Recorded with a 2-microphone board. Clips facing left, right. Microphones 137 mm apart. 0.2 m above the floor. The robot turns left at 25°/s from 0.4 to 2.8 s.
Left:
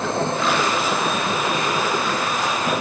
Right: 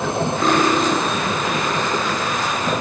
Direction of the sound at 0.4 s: 40° right (ahead or behind).